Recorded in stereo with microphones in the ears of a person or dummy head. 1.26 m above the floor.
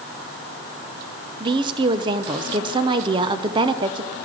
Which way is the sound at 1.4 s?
25° right (ahead or behind).